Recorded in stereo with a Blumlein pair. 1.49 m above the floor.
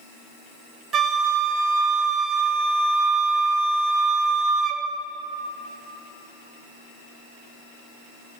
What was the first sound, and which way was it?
A flute, 20° right.